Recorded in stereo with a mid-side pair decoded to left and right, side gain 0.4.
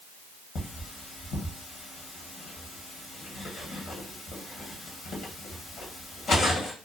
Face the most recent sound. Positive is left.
turn(degrees=60)